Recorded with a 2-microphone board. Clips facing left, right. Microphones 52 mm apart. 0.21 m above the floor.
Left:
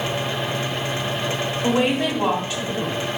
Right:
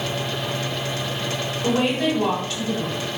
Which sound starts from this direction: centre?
A woman speaking, at 1.6 s.